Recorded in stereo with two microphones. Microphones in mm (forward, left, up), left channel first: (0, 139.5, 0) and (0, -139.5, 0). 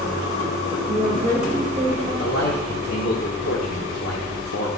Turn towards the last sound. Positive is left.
turn(degrees=55)  # may be behind; listen again after turning